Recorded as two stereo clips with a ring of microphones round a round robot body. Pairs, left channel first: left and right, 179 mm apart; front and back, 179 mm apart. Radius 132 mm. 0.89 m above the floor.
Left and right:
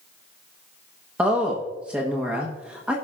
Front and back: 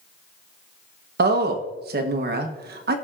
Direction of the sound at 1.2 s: 175° right.